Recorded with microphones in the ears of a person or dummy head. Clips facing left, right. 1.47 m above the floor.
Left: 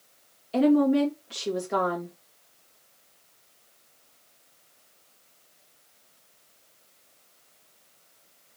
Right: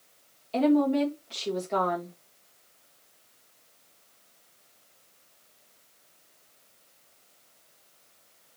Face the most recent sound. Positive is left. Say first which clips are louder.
# left 2 dB
turn(degrees=15)  # may be behind; listen again after turning